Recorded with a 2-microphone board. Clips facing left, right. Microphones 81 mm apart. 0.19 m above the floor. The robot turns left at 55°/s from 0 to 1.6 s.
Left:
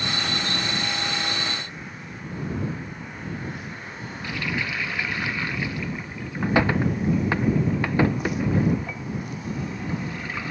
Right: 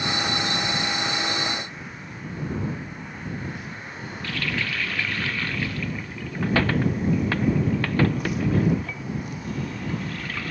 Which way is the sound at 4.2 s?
15° left (ahead or behind).